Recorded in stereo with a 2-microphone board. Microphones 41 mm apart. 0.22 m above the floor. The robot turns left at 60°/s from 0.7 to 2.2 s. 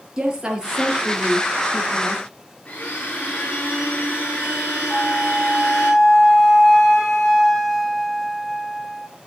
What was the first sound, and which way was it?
A woman speaking, 160° right.